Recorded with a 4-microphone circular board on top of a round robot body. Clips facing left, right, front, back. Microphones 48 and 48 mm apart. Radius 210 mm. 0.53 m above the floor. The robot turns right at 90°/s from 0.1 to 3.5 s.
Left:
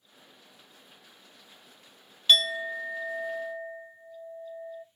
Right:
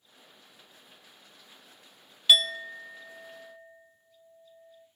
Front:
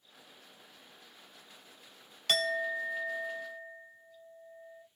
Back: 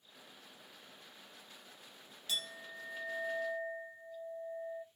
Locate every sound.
2.3 s a clink: 10° right, 0.7 m; by 4.8 s 100° left, 0.7 m